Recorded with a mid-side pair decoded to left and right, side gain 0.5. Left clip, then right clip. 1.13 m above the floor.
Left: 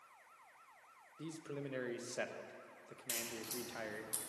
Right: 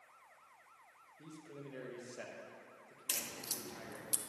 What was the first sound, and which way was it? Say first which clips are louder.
A man speaking: left 6 dB; 50° left.